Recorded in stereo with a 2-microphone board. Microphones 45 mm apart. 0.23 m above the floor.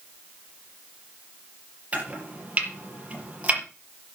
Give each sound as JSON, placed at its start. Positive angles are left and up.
{"t": 1.9, "sound": "chopping", "side_deg": -30, "distance_m": 5.5}